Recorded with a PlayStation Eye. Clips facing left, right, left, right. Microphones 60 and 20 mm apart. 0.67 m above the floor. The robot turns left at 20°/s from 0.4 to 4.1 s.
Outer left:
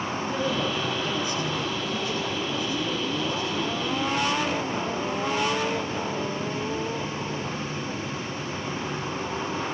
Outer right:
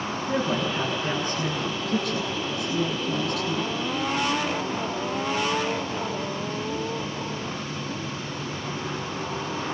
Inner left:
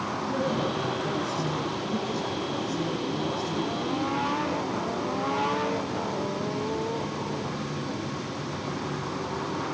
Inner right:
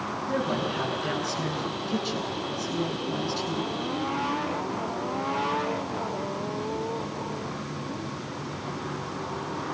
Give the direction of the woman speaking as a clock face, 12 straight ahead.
1 o'clock.